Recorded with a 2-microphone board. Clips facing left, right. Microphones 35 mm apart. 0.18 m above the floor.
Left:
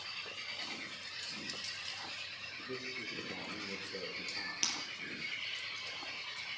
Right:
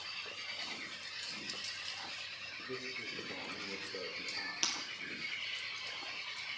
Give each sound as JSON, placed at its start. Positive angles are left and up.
{"t": 2.6, "sound": "a man speaking", "side_deg": 10, "distance_m": 3.5}
{"t": 4.6, "sound": "breaking glass", "side_deg": -10, "distance_m": 2.5}